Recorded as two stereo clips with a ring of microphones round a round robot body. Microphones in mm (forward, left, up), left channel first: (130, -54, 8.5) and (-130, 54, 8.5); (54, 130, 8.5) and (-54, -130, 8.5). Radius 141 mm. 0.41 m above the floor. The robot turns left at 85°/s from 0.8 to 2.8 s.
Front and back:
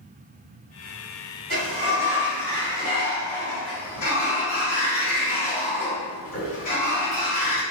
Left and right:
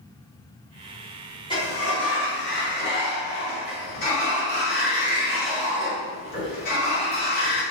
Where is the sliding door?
135° left, 1.9 m; by 7.6 s 25° left, 1.9 m.